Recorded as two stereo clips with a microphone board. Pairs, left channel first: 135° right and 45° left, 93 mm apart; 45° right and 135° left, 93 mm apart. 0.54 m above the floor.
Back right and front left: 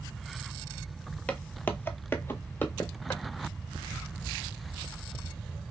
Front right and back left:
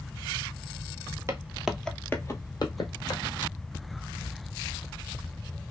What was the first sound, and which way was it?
Footsteps, 160° left.